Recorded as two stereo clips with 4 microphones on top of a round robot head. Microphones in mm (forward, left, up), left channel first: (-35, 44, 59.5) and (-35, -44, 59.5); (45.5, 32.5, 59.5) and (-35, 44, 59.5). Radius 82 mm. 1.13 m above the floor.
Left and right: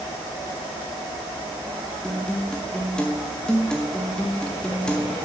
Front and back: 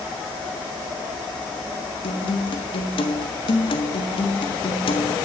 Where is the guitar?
10° left, 1.5 m.